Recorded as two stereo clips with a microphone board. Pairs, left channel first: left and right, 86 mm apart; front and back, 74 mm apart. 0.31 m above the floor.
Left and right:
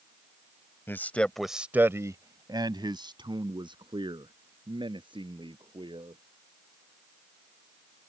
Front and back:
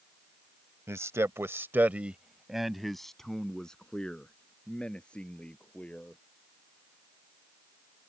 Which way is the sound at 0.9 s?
145° left.